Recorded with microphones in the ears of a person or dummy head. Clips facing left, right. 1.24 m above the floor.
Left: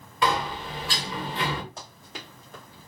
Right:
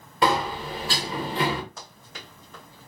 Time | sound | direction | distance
0.2 | a sliding door | 35° right (ahead or behind) | 0.7 m
1.8 | running footsteps | 25° left (ahead or behind) | 1.5 m